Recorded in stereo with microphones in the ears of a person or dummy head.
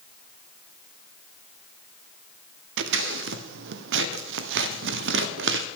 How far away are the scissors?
About 0.7 m.